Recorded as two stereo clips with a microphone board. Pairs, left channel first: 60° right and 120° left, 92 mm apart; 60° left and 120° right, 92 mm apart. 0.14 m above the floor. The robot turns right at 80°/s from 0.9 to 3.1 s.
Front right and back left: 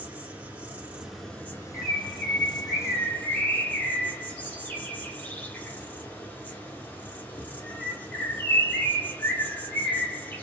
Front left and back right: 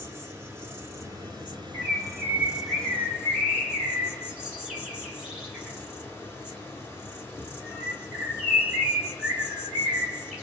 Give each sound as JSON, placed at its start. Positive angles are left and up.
{"t": 0.0, "sound": "an insect", "azimuth_deg": -175, "distance_m": 0.9}
{"t": 1.7, "sound": "a bird", "azimuth_deg": -140, "distance_m": 1.6}